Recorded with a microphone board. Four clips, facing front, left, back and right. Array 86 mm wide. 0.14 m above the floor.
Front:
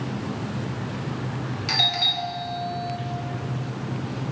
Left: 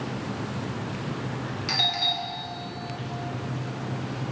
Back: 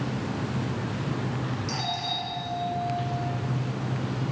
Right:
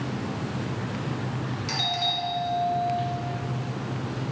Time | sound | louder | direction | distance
1.7 | a doorbell | even, front 2 dB | 15° left | 3.5 m